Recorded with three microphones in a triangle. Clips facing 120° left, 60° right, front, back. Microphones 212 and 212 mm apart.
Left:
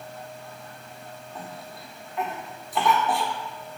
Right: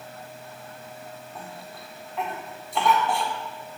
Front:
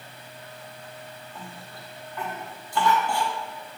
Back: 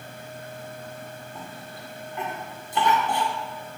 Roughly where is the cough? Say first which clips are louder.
Left 1 dB, back 3 dB; behind right.